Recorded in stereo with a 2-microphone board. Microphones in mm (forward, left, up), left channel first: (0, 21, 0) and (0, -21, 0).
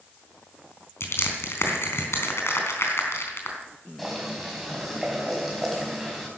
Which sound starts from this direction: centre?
Boiling, at 4.0 s.